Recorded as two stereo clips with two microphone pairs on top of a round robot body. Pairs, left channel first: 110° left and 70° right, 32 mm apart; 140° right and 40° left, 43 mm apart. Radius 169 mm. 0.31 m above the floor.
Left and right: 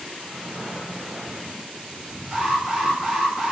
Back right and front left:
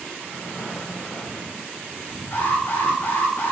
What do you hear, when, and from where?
0.2 s breathing: 165° right, 3.5 m
2.3 s an alarm: 135° right, 4 m